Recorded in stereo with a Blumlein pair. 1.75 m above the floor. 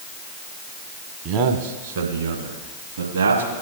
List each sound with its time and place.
1.2 s a man speaking: 35° right, 1.3 m; by 3.5 s 65° right, 4 m